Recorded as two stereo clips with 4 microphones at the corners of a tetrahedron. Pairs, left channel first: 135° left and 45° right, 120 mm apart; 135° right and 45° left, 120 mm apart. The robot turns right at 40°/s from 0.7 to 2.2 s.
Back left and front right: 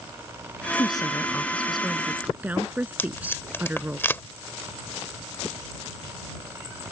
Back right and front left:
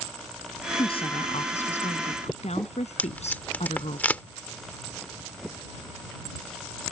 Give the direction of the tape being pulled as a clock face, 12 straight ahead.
6 o'clock.